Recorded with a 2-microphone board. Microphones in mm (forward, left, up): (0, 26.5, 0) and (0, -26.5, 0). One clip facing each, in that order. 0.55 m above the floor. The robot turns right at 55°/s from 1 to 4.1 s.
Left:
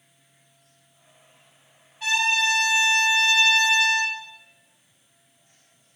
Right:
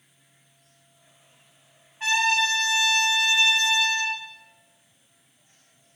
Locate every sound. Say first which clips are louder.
2.0 s a trumpet: even; 100° right, 0.7 m; by 4.2 s 20° left, 0.7 m